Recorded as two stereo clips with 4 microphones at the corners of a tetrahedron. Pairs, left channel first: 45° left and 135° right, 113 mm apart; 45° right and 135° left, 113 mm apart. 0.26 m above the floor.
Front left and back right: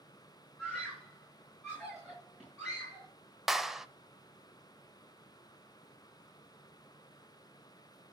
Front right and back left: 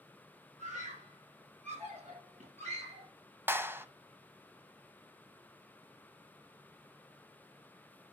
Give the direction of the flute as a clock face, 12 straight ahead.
I don't hear a flute.